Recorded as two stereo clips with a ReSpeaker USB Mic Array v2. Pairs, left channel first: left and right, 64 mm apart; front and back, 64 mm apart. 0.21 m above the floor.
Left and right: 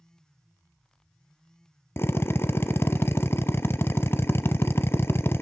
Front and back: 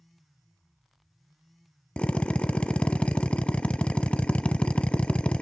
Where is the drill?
65° left, 0.8 m.